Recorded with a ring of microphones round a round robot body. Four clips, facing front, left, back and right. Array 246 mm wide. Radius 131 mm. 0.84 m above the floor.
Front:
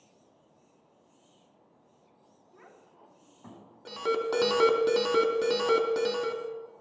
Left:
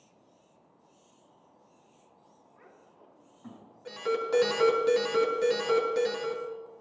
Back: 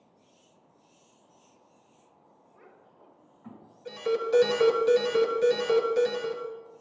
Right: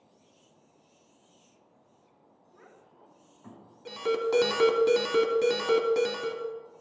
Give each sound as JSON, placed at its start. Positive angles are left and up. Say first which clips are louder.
{"t": 2.5, "sound": "a child speaking", "louder": "right 2 dB, front 1 dB", "azimuth_deg": 0, "distance_m": 6.0}
{"t": 3.9, "sound": "an alarm", "louder": "right 2 dB, back 2 dB", "azimuth_deg": -30, "distance_m": 3.0}